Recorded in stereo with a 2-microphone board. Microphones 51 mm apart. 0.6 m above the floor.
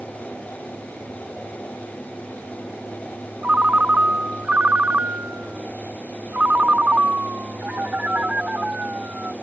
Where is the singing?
I don't hear singing.